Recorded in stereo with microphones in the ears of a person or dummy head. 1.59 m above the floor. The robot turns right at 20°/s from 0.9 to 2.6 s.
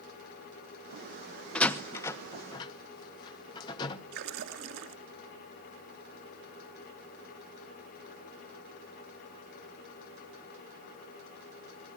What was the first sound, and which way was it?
A door slam, 5° left (ahead or behind).